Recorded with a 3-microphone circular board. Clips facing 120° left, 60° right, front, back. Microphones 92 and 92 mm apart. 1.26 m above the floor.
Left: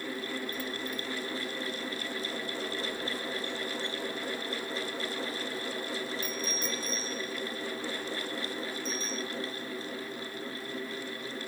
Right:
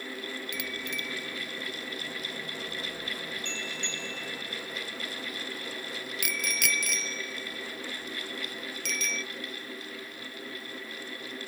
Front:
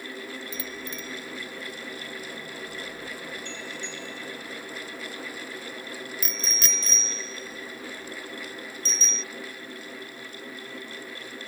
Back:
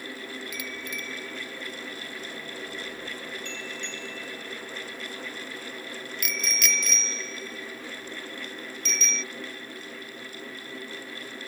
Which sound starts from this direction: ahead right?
A bicycle bell, at 0.5 s.